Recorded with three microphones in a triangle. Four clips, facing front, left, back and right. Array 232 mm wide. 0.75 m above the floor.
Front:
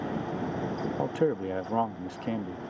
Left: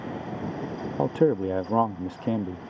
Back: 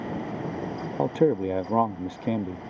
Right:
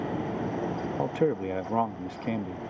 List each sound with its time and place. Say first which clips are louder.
1.0 s a man speaking: left 5 dB, back 6 dB; 130° left